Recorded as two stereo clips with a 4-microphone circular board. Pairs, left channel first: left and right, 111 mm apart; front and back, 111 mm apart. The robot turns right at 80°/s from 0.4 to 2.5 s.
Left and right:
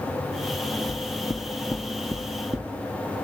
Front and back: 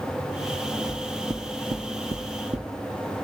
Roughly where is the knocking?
Left.